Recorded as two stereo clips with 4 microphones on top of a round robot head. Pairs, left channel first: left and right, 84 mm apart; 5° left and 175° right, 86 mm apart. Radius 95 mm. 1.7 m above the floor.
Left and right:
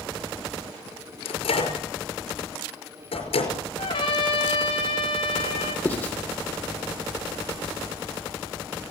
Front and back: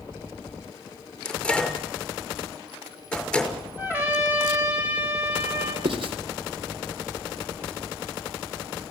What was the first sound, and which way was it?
A microwave, 90° left.